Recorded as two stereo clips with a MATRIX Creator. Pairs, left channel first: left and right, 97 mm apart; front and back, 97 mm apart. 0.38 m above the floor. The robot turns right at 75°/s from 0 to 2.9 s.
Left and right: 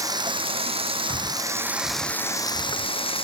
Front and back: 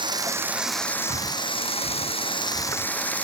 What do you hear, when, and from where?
0.0 s running water: 145° right; by 3.2 s 75° left
1.1 s breathing: 135° left; by 3.2 s 90° right